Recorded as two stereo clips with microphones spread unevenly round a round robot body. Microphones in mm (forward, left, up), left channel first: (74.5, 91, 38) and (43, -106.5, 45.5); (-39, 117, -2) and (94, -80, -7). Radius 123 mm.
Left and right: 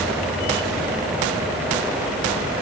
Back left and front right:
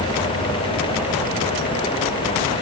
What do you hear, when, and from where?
Only background noise.